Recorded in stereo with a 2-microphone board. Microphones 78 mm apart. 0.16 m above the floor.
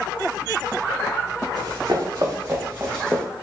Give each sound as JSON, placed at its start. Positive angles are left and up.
{"t": 1.6, "sound": "running footsteps", "side_deg": -55, "distance_m": 1.3}